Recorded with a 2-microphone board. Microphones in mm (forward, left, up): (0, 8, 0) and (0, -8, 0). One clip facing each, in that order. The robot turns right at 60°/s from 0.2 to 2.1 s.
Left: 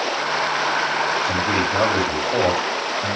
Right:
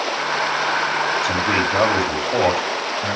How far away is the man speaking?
About 3.5 m.